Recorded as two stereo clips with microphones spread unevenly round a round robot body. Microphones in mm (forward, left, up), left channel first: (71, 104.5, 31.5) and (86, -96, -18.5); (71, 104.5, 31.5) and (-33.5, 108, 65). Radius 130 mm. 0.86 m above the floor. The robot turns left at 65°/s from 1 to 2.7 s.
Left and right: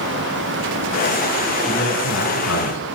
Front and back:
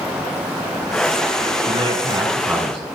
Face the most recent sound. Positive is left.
turn(degrees=95)